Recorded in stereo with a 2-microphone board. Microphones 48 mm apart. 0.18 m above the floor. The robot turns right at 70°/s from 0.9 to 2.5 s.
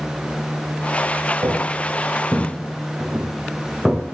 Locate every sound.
1.4 s footsteps: 85° right, 6 m; by 4.0 s 10° right (ahead or behind), 3 m